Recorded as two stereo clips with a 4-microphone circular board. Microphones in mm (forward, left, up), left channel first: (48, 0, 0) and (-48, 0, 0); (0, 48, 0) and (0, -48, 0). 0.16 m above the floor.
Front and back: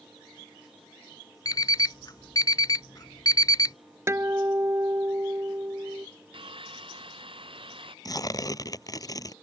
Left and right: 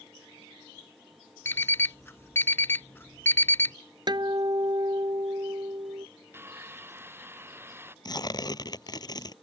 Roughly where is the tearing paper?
Ahead left.